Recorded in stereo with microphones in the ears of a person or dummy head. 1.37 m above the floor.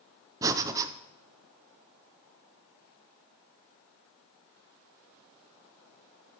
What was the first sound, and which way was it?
Breathing, 20° right (ahead or behind).